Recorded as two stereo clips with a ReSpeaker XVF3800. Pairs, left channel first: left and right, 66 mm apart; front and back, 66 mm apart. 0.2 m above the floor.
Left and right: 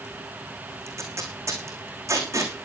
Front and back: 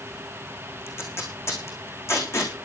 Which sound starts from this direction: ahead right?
Tape being pulled, at 0.9 s.